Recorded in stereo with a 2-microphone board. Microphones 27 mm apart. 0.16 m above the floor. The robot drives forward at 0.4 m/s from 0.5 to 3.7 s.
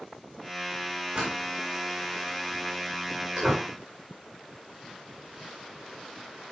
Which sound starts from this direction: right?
A door slam, at 1.1 s.